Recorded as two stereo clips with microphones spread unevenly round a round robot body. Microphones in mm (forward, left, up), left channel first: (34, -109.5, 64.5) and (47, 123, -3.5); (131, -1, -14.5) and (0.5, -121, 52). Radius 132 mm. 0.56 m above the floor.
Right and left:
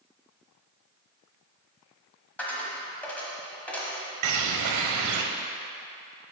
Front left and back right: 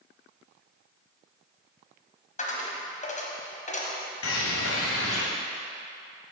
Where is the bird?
80° left, 0.7 m.